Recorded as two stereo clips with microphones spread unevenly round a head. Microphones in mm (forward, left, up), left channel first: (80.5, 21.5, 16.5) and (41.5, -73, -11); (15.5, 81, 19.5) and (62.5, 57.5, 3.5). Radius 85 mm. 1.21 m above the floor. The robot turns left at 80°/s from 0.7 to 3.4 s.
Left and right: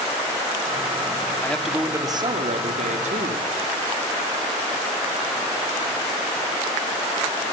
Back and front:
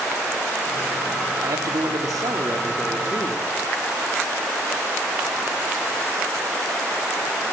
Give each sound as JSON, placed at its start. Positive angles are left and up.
{"t": 1.4, "sound": "a man speaking", "azimuth_deg": -5, "distance_m": 2.5}